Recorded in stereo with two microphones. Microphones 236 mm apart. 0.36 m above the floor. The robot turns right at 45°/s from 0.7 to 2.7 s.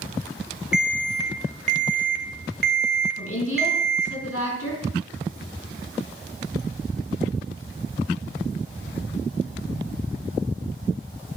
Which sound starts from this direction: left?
A woman speaking, at 3.2 s.